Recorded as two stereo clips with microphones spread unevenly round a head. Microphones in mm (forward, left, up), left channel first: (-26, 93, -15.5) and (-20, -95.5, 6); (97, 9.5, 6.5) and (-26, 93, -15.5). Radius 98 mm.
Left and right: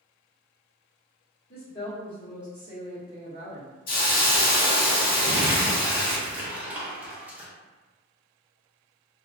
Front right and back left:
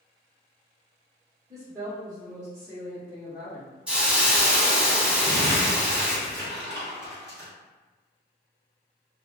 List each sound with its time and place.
1.5 s a woman speaking: 100° left, 0.8 m; by 3.7 s 140° right, 1.2 m
3.9 s a hiss: 55° left, 0.8 m
5.2 s crumpling: 170° right, 0.7 m